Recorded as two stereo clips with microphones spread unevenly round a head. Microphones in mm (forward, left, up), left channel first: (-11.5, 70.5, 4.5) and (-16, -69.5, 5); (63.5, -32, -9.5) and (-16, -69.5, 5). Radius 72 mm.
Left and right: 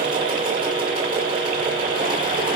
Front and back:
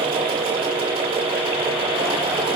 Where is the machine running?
150° right, 3 m.